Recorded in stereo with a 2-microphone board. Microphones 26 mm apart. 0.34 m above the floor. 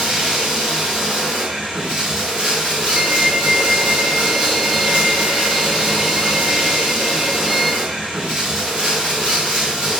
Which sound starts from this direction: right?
Running water, at 0.0 s.